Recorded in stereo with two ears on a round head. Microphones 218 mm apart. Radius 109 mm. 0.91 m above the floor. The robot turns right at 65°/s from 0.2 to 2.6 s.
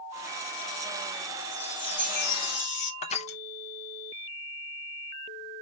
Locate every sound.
1.5 s a chime: straight ahead, 2.5 m; by 2.9 s 70° left, 2.5 m
3.0 s crushing: 25° left (ahead or behind), 0.7 m